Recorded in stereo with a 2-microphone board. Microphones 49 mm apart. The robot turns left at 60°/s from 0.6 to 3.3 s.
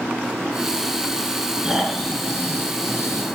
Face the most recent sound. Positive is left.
turn(degrees=95)